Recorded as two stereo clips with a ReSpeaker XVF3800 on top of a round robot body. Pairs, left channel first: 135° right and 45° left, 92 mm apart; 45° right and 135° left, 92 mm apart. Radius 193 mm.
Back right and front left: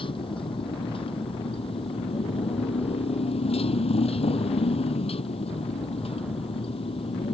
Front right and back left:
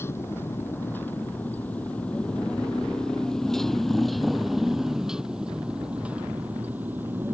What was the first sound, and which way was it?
A motorcycle, 110° right.